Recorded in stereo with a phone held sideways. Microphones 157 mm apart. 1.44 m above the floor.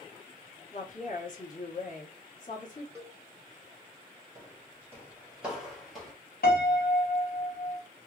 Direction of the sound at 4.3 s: 20° right (ahead or behind).